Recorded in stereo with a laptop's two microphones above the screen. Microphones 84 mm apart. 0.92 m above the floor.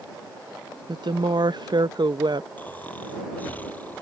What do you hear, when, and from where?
0.9 s a woman speaking: 60° right (ahead or behind)
2.6 s snoring: 20° left (ahead or behind)